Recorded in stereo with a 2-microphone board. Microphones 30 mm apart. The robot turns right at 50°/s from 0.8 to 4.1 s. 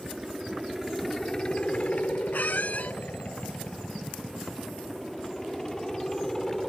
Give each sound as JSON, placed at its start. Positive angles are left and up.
{"t": 0.0, "sound": "a helicopter", "side_deg": -10}
{"t": 2.3, "sound": "a squeak", "azimuth_deg": 90}